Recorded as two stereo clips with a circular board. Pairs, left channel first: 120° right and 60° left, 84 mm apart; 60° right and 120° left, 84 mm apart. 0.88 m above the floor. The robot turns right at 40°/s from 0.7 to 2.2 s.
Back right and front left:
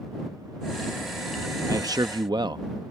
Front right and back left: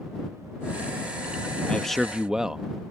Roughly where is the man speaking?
Ahead.